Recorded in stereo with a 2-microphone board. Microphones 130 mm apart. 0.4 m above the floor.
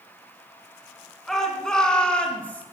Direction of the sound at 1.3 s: 5° left (ahead or behind).